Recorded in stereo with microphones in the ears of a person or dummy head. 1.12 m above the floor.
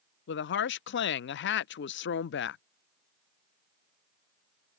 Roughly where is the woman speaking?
Left.